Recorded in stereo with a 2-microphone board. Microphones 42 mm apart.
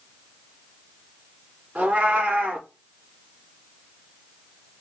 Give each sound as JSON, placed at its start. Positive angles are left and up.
{"t": 1.8, "sound": "a cat meowing", "side_deg": -40, "distance_m": 1.4}